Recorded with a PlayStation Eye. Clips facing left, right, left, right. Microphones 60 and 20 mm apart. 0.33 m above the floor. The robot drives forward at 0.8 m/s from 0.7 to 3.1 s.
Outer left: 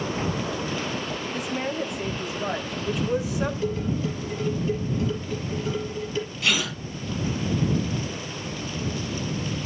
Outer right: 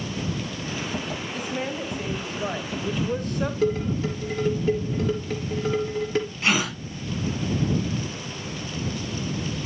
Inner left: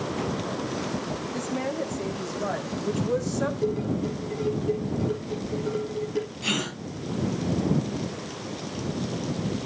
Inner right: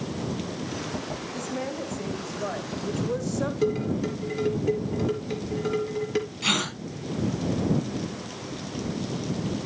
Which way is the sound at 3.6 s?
70° right (ahead or behind).